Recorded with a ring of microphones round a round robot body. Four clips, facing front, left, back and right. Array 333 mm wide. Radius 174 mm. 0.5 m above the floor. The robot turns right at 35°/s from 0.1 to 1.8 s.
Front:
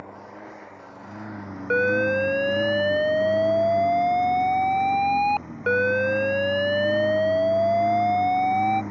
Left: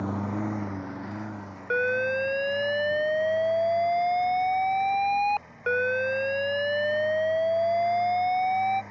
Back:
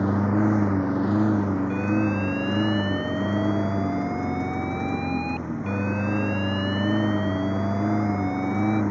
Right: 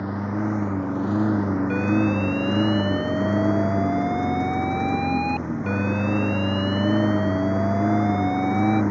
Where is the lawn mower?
175° right; by 8.9 s 115° right.